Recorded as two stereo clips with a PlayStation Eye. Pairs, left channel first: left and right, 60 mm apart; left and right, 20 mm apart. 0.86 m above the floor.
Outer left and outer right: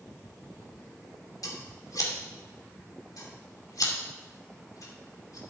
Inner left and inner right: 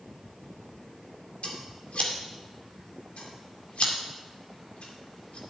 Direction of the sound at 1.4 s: 80° left.